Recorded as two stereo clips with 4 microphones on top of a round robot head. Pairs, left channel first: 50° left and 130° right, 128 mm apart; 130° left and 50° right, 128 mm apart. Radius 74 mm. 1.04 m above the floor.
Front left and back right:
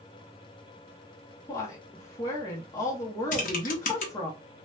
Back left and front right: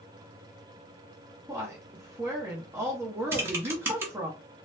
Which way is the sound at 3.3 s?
25° left.